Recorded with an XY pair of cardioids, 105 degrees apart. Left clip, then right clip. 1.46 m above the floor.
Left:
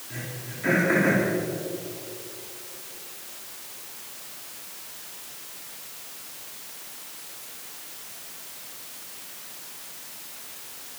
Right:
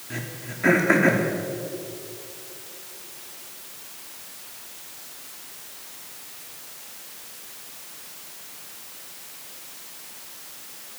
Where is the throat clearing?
55° right, 3 m.